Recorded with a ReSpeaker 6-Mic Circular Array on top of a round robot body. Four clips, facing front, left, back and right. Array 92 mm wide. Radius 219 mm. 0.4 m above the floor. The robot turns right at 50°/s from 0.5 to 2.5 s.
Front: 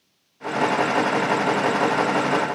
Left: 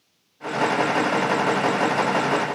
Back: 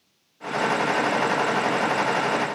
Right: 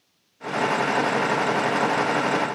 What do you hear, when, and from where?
Only background noise.